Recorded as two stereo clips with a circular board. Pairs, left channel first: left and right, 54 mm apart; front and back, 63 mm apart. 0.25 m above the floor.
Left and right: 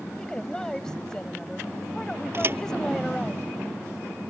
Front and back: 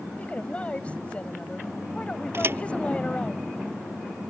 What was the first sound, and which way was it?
A woman speaking, 30° left.